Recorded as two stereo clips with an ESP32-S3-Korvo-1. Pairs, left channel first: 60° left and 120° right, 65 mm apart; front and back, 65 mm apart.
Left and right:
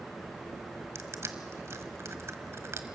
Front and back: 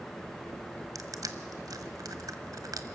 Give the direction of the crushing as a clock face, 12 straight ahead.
5 o'clock.